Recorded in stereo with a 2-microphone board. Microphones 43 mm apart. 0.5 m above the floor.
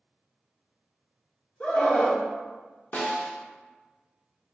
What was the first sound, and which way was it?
A scream, 30° left (ahead or behind).